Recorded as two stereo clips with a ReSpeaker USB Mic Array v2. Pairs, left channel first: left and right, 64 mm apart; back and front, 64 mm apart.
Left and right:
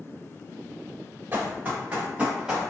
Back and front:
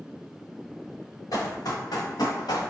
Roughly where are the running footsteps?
Behind right.